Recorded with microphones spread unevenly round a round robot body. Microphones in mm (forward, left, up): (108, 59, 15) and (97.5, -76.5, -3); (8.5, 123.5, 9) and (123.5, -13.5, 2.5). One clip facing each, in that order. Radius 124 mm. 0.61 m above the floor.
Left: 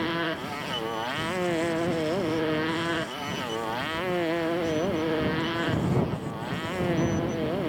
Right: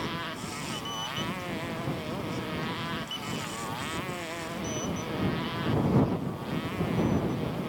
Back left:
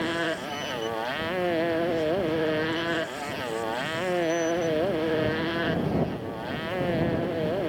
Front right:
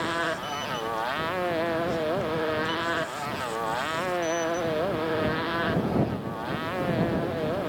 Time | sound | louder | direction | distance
0.0 | a motorcycle | left 7 dB, back left 2 dB | 65° left | ?